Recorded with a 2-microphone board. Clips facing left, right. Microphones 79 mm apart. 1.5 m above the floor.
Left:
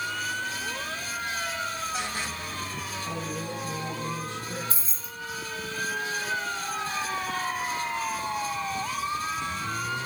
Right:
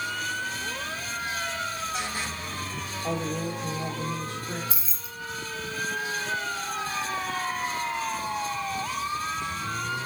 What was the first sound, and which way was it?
A woman speaking, 60° right (ahead or behind).